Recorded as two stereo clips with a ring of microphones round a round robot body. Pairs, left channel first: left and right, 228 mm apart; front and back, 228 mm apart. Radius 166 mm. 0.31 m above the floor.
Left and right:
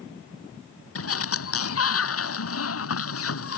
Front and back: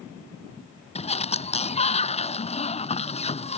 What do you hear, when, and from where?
0.9 s a sliding door: 65° left